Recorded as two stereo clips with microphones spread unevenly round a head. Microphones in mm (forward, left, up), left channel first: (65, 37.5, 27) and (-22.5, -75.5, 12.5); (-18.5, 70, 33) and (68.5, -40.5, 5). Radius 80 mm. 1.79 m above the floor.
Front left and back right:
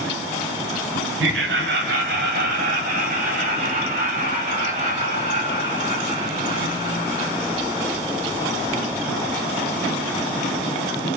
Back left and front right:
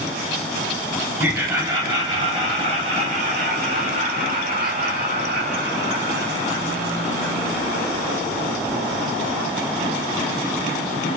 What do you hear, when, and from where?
1.2 s laughter: 135° right, 1.8 m; by 8.2 s 80° right, 5 m